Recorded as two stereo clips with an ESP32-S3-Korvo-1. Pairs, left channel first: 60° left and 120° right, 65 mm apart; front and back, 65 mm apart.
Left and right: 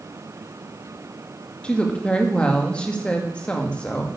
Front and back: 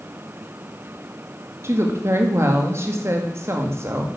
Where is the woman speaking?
135° left, 2 m.